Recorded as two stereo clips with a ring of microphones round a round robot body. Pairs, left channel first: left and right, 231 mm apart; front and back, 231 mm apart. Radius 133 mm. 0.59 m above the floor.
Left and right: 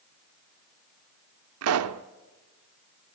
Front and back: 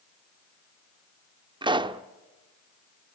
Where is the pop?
110° right, 0.7 m.